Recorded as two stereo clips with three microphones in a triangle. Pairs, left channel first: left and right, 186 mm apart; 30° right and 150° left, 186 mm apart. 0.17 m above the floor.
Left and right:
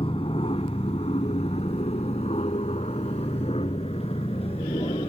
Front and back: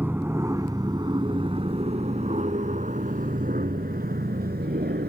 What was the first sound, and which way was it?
An aircraft, 80° left.